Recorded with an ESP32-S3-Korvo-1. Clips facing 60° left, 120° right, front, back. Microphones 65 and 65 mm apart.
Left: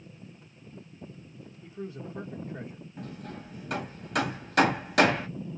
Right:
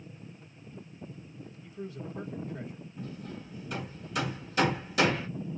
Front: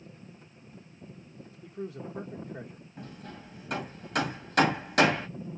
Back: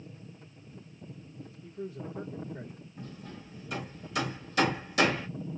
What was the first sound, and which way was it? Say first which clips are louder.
A man speaking: left 2 dB, front 1 dB; 5° left.